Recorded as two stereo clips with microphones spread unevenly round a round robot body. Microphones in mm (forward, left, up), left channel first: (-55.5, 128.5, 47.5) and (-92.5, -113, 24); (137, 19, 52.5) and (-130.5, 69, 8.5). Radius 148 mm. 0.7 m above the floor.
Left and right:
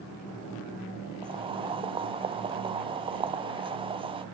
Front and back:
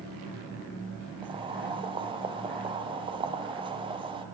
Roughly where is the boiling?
Behind right.